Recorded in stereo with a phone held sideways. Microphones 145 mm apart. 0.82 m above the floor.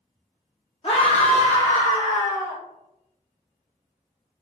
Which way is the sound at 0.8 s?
40° left (ahead or behind).